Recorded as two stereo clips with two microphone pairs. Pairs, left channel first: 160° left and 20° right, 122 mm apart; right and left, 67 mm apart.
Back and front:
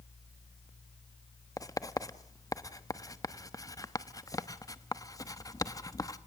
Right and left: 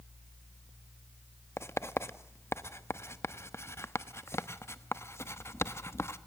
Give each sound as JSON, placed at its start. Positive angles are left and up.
{"t": 1.6, "sound": "writing", "azimuth_deg": -140, "distance_m": 1.1}